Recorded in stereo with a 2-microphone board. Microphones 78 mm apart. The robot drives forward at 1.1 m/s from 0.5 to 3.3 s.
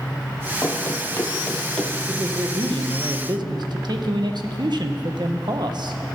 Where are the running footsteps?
25° left (ahead or behind), 2 m; by 2.0 s 10° left (ahead or behind), 2 m.